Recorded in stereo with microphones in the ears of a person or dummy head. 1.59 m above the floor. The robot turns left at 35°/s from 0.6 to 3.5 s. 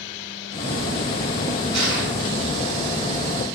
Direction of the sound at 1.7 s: 80° right.